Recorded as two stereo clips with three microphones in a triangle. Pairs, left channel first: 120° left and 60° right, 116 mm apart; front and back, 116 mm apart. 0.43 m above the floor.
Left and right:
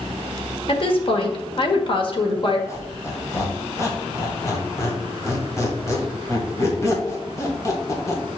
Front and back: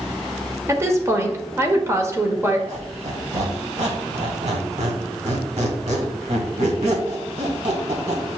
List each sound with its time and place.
0.7 s a woman speaking: 120° left, 1.3 m
2.7 s a squeak: straight behind, 1.8 m